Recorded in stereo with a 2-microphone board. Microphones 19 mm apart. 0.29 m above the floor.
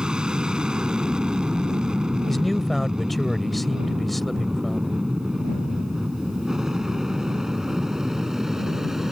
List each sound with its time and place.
0.0 s an aircraft: 50° right (ahead or behind); by 9.1 s 20° right (ahead or behind)
2.3 s a man speaking: 10° left (ahead or behind)